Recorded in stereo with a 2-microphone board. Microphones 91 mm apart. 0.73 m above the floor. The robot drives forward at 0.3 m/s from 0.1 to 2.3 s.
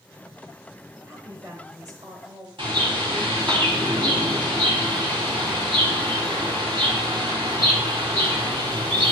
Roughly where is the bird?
Right.